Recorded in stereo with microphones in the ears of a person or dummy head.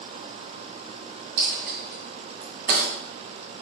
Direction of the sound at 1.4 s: 45° right (ahead or behind).